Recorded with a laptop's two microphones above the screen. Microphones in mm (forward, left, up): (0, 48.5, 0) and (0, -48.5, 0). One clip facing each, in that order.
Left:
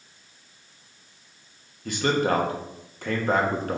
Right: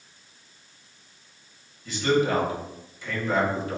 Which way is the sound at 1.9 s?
55° left (ahead or behind).